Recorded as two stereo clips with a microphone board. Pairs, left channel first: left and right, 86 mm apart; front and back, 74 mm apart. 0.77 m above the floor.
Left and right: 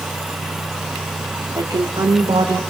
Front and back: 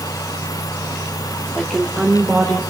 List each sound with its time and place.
1.6 s a woman speaking: 90° right, 1.8 m; by 2.6 s 95° right, 3.5 m